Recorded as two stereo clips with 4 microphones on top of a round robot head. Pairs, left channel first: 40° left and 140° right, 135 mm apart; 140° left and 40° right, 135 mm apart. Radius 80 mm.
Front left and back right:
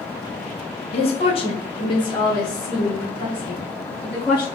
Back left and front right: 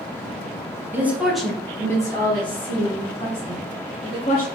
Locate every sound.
0.9 s a woman speaking: 30° left, 0.9 m; by 4.5 s 125° left, 1.8 m